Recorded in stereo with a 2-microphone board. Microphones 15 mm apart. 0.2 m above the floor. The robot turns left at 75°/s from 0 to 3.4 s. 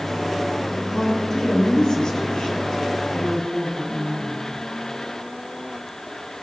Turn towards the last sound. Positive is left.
turn(degrees=0)